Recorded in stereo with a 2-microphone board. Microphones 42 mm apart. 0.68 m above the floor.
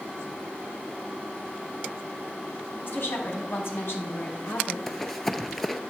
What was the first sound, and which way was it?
A woman speaking, 65° left (ahead or behind).